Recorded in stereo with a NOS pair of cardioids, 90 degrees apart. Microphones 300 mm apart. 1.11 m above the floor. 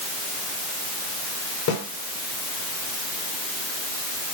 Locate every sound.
1.7 s a snare drum: 70° left, 4 m